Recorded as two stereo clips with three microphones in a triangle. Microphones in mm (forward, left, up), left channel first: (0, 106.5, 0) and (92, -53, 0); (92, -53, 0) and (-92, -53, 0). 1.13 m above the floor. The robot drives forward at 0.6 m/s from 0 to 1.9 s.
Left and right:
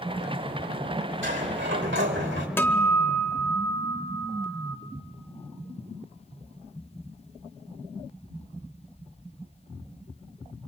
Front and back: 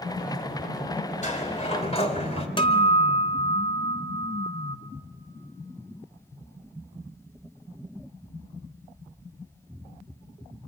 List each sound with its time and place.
1.2 s a sliding door: 50° right, 3 m; by 2.5 s 60° right, 2.5 m
2.6 s a guitar: 45° left, 1.0 m